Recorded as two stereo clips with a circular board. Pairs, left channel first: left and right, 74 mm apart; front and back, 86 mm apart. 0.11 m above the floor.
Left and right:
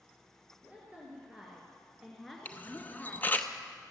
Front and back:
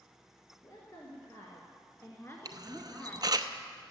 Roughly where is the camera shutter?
Behind left.